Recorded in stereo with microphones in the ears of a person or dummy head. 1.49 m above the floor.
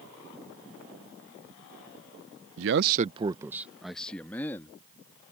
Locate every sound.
2.6 s a man speaking: 75° right (ahead or behind); by 4.8 s 15° left (ahead or behind)